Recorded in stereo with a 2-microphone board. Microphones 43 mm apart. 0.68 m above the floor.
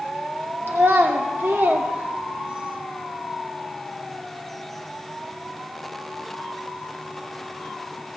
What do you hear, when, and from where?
0.7 s a child speaking: 65° right (ahead or behind), 1.6 m; by 2.8 s 20° right (ahead or behind), 0.7 m